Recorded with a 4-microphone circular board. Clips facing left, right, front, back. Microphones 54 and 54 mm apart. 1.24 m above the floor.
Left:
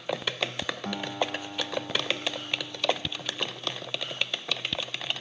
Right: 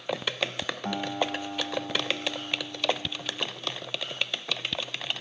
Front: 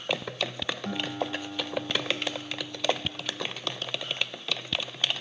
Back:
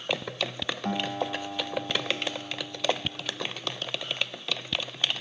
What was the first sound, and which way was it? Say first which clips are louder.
A guitar: right 2 dB, back 3 dB; 145° right.